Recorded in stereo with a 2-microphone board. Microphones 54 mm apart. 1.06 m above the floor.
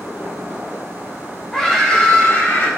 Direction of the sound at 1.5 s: 10° left (ahead or behind).